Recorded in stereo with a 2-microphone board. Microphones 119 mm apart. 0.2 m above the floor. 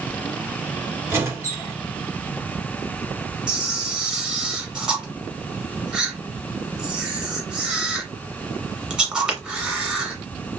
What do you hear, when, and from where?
1.1 s a squeak: 25° right (ahead or behind), 1.1 m
3.5 s a camera shutter: 5° right (ahead or behind), 1.0 m